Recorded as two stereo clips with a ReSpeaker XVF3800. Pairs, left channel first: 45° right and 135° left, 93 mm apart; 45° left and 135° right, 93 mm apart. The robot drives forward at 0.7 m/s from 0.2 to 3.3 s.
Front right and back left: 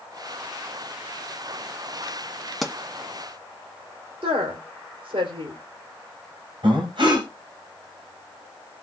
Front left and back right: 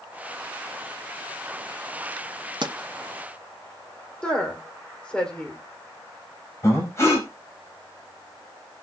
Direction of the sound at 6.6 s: 105° left.